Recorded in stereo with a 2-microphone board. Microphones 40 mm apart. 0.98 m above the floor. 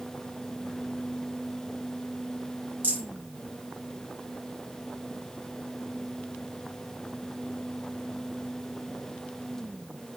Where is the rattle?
50° right (ahead or behind), 3.5 m.